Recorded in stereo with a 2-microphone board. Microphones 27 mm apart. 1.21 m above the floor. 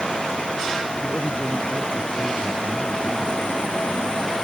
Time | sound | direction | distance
1.0 | a man speaking | 70° left (ahead or behind) | ?